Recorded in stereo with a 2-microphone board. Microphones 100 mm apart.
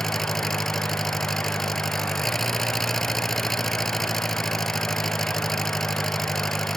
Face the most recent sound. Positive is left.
turn(degrees=0)  # may be behind; listen again after turning